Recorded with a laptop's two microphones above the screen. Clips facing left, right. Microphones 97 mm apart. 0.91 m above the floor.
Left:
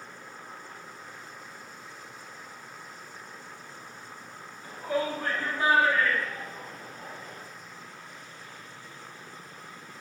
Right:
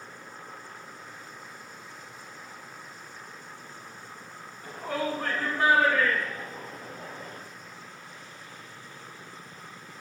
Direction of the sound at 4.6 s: 75° right (ahead or behind).